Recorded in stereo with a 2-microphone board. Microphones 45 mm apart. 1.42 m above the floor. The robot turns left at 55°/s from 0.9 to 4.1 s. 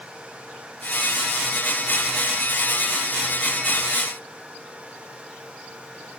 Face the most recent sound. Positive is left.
No sound to turn to.